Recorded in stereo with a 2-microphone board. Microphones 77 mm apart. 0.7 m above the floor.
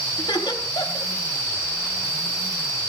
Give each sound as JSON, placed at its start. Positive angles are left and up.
{"t": 0.2, "sound": "laughter", "side_deg": 75, "distance_m": 4.0}